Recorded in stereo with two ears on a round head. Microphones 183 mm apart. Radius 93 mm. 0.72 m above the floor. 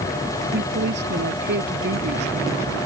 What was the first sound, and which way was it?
A woman speaking, 60° right (ahead or behind).